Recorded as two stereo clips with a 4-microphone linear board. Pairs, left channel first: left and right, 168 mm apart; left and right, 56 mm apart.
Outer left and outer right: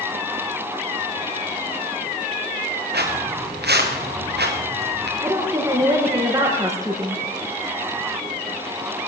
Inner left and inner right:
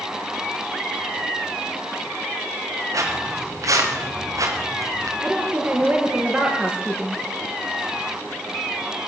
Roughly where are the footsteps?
Right.